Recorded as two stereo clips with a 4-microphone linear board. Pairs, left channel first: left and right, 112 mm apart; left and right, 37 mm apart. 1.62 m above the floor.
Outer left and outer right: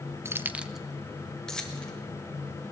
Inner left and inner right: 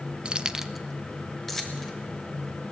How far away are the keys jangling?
About 0.5 m.